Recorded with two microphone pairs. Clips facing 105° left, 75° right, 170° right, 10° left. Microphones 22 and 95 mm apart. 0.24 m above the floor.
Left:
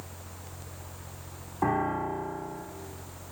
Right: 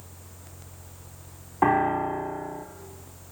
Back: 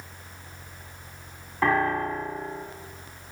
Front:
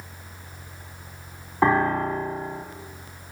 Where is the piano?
45° right, 0.7 m.